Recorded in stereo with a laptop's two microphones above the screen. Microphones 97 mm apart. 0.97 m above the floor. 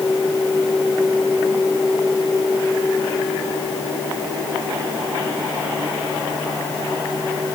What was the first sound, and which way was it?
Only background noise.